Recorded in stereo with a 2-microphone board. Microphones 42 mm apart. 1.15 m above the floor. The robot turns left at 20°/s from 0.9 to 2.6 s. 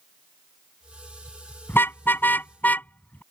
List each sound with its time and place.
1.7 s a car horn: 65° left (ahead or behind); by 3.2 s 45° left (ahead or behind)